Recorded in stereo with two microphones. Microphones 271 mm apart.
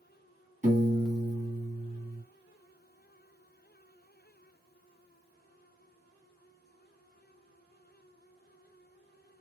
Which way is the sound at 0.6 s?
30° right (ahead or behind).